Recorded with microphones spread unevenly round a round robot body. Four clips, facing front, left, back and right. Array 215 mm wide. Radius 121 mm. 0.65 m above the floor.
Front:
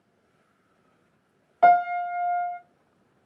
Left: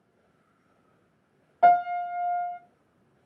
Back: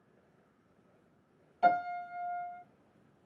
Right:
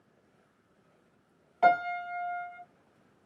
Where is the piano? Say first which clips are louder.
Left 5 dB, front 11 dB; straight ahead, 1.6 m.